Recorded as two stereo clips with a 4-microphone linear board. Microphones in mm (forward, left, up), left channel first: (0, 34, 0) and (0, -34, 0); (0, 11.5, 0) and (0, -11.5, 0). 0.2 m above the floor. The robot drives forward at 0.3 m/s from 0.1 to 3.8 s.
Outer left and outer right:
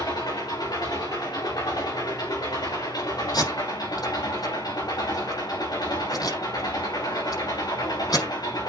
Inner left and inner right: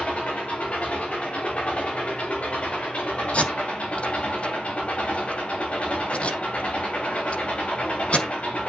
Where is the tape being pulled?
75° left (ahead or behind), 6 m; by 8.2 s 70° left (ahead or behind), 6 m.